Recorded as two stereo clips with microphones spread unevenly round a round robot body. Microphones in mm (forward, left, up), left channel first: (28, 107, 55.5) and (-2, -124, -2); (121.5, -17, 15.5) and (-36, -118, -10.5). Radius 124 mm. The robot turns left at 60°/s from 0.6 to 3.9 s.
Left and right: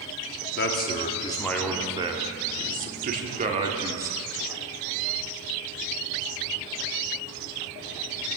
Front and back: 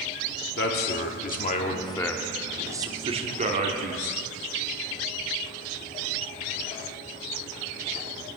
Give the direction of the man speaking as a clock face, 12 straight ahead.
11 o'clock.